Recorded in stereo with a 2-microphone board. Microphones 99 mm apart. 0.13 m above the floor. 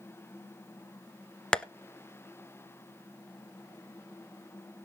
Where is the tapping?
10° left (ahead or behind), 0.8 m.